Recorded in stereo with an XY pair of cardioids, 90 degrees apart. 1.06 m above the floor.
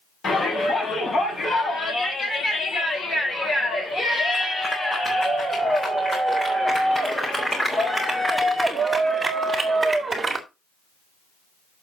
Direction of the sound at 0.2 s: 50° left.